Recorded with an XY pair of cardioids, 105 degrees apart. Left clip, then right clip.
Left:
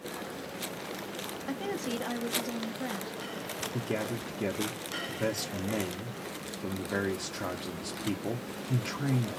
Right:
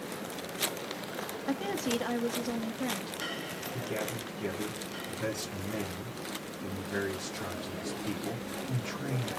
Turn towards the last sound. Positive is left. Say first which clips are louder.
# left 1 dB
turn(degrees=50)